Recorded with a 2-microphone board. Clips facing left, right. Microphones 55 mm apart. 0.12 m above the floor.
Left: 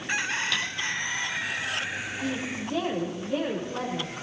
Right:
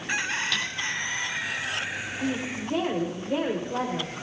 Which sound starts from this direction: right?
A woman speaking, at 2.2 s.